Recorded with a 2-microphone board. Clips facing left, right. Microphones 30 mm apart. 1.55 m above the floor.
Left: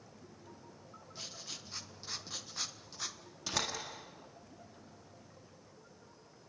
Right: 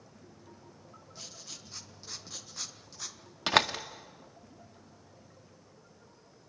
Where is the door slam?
65° right (ahead or behind), 1.7 m.